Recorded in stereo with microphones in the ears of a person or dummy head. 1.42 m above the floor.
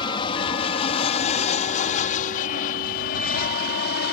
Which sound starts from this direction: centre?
An aircraft, at 0.0 s.